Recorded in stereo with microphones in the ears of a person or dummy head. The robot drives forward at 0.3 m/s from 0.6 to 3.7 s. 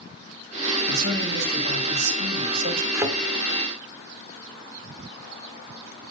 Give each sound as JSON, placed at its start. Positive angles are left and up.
{"t": 0.9, "sound": "a man speaking", "side_deg": -60, "distance_m": 2.0}
{"t": 2.9, "sound": "a thud", "side_deg": -20, "distance_m": 1.5}